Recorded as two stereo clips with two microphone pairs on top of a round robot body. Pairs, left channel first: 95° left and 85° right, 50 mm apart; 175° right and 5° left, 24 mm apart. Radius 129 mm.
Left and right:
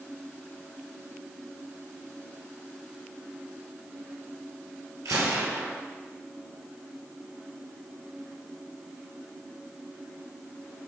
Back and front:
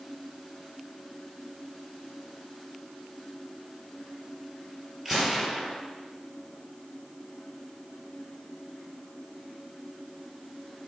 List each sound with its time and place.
5.0 s a gunshot: 70° right, 2 m